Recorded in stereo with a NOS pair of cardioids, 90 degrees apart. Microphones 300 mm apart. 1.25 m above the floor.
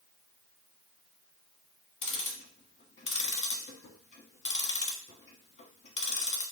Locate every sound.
2.0 s ticking: 40° left, 1.3 m